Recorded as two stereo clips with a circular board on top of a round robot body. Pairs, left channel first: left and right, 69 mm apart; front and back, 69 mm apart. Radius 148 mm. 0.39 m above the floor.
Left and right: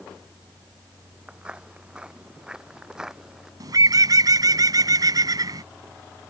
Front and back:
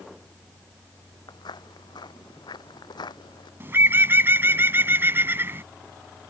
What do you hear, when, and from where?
1.3 s footsteps: 15° right; by 3.5 s 10° right
3.6 s a bird: 125° right